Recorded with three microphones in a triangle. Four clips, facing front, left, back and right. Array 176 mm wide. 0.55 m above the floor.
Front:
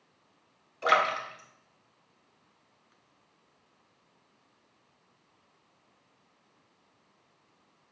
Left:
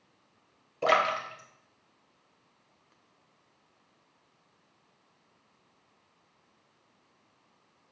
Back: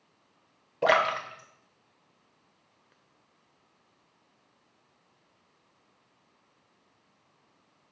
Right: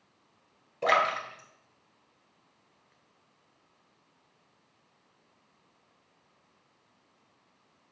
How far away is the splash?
About 1.3 m.